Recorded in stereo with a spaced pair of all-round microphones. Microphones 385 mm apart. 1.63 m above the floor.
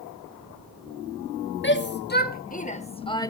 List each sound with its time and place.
1.6 s a shout: 30° left (ahead or behind), 2.0 m; by 3.3 s 10° left (ahead or behind), 1.2 m